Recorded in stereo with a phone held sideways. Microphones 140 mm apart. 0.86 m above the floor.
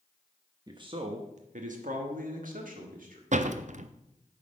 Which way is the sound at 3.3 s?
60° right (ahead or behind).